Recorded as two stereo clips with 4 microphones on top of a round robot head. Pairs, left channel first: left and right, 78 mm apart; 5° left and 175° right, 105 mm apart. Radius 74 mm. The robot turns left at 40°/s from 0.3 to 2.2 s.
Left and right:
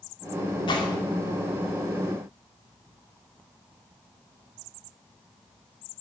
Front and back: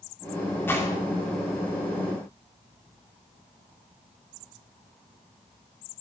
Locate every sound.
0.7 s a gunshot: 75° left, 2.5 m; by 1.0 s 60° left, 2.5 m